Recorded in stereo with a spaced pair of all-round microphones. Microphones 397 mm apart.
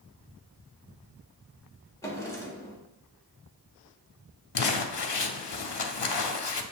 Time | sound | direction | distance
2.0 | a drawer | 5° left (ahead or behind) | 0.9 m
4.5 | crumpling | 80° left | 0.5 m